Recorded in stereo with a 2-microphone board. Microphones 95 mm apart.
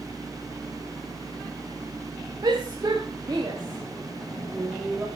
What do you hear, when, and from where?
2.4 s a shout: 45° right (ahead or behind), 4.5 m; by 5.1 s 15° right (ahead or behind), 4 m